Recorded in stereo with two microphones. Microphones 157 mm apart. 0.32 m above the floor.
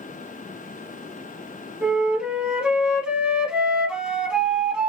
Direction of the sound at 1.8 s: 5° right (ahead or behind).